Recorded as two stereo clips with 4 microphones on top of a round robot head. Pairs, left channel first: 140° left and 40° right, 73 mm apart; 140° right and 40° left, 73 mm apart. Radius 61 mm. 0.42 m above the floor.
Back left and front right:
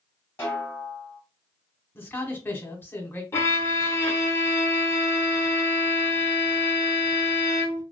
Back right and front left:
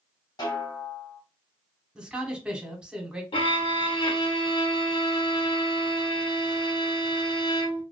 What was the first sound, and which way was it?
A snare drum, 160° right.